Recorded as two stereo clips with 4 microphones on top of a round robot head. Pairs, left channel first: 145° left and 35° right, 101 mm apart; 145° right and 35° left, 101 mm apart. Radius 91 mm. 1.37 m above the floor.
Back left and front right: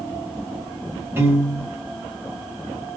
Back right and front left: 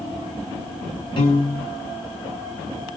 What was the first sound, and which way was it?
A piano, 105° right.